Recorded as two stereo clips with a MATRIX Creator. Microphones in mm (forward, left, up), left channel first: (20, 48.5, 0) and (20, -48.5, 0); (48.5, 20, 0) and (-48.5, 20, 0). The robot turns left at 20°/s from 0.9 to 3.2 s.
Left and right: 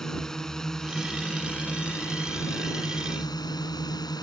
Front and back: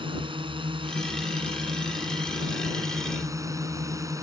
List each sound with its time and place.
0.0 s a drone: 175° left; by 4.2 s 130° left